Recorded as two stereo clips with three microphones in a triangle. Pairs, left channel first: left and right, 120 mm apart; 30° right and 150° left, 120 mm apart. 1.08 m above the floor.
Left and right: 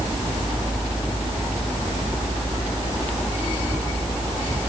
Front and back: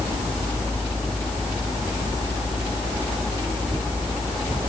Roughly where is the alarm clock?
I don't hear an alarm clock.